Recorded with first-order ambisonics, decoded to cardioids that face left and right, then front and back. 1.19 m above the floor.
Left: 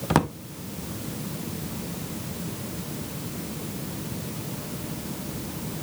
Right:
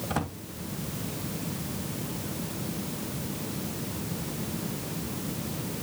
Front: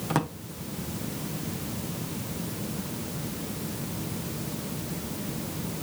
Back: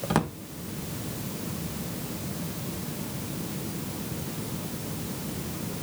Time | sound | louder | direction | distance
0.1 | a drawer | left 10 dB, back 1 dB | 100° left | 1.2 m